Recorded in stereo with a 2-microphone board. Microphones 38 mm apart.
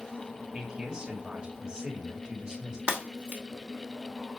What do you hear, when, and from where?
0.5 s a man speaking: 20° right (ahead or behind), 2.5 m
2.9 s breaking glass: 35° right (ahead or behind), 2.5 m